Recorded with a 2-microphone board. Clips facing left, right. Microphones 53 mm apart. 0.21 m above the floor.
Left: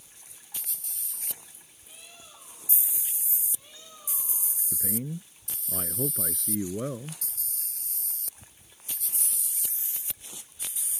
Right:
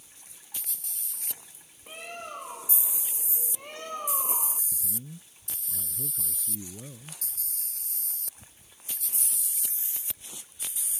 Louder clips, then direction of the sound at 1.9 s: Right 13 dB; 55° right (ahead or behind).